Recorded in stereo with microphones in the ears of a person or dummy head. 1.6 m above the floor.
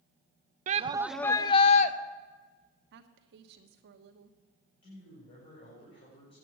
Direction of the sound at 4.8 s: 40° left (ahead or behind).